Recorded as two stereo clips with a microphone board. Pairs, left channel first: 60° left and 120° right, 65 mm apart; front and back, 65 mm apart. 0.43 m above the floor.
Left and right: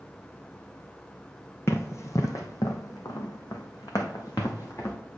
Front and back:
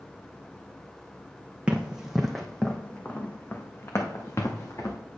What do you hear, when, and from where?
1.7 s running footsteps: 110° left, 1.2 m; by 5.0 s 30° left, 1.8 m